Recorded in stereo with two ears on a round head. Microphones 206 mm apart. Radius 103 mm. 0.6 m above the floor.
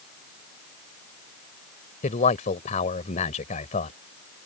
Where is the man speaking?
35° left (ahead or behind).